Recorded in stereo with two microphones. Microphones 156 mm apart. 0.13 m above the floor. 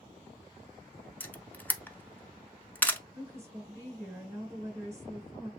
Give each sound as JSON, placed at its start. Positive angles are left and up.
{"t": 1.2, "sound": "a camera shutter", "side_deg": 10, "distance_m": 0.5}
{"t": 3.1, "sound": "a woman speaking", "side_deg": -15, "distance_m": 1.6}